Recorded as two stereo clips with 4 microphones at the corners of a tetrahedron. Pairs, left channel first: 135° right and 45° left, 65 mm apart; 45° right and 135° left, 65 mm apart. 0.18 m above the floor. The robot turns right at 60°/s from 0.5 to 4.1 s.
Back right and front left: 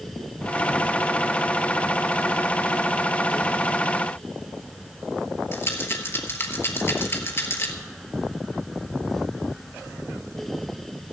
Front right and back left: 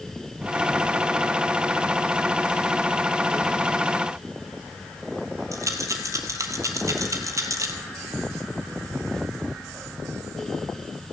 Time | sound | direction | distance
5.5 | a rattle | 175° left | 1.2 m